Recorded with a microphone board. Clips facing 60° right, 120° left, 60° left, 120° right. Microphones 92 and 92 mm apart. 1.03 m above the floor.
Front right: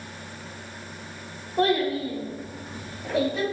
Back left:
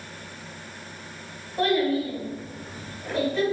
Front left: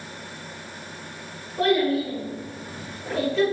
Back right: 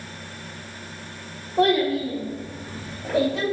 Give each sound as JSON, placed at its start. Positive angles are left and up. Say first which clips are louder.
{"t": 1.6, "sound": "a child speaking", "louder": "even, back right 1 dB", "azimuth_deg": -115, "distance_m": 1.7}